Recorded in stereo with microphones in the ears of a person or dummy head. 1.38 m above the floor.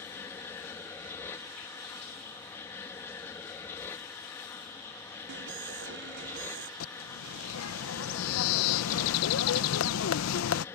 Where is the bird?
75° left (ahead or behind).